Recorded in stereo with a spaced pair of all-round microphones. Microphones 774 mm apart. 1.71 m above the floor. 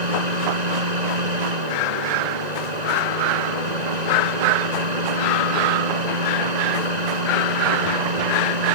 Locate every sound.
0.0 s a fan: 60° right (ahead or behind)